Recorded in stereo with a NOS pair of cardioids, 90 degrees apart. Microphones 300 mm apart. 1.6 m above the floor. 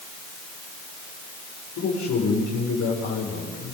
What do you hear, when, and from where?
1.8 s a man speaking: 65° left, 7 m